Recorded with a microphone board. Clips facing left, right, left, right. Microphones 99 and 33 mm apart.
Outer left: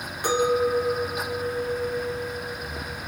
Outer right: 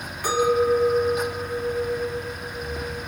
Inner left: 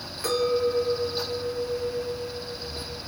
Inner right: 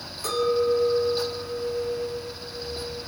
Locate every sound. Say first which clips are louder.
0.2 s a clink: outer right 2 dB, inner right 1 dB; 20° left (ahead or behind), 1.8 m